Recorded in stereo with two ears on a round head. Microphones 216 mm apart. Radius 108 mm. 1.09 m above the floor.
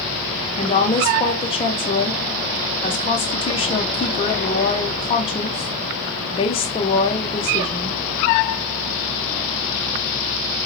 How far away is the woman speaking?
About 0.7 m.